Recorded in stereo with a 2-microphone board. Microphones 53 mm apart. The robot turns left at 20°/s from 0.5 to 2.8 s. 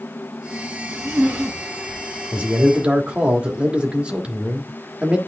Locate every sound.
0.8 s a zipper: 45° right (ahead or behind), 6 m; by 2.2 s 20° right (ahead or behind), 6 m
2.3 s a man speaking: 30° right (ahead or behind), 1.4 m; by 5.2 s 25° right (ahead or behind), 1.4 m